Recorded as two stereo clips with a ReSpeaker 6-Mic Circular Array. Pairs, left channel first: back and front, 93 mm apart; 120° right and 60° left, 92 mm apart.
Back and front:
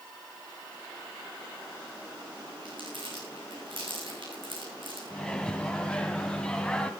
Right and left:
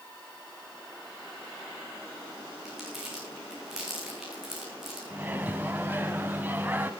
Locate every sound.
2.6 s crumpling: 25° right, 6.5 m
5.1 s a microwave: 110° left, 1.4 m